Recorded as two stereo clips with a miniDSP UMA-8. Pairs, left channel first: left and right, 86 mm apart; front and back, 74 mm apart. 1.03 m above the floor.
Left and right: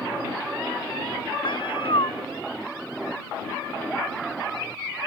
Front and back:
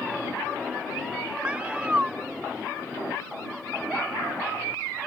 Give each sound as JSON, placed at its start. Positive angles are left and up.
{"t": 1.4, "sound": "a cat meowing", "azimuth_deg": 105}